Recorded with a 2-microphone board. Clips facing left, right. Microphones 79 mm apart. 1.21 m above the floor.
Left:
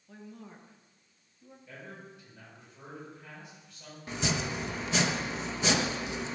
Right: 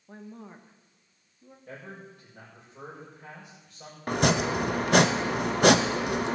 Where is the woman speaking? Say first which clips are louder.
Right 3 dB; 40° right (ahead or behind), 1.2 m; by 1.6 s 15° right (ahead or behind), 2.5 m.